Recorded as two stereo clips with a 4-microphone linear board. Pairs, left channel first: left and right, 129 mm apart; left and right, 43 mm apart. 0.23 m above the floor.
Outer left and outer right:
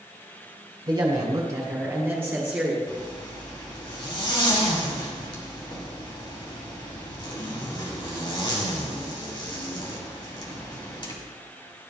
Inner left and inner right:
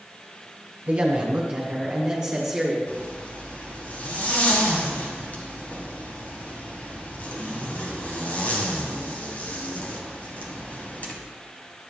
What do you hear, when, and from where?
0.9 s a woman speaking: 35° right (ahead or behind), 1.7 m; by 2.8 s 10° right (ahead or behind), 2.0 m
2.9 s a zipper: 40° left (ahead or behind), 1.7 m